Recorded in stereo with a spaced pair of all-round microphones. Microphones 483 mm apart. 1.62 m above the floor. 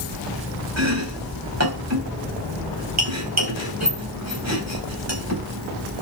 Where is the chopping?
30° right (ahead or behind), 4 m.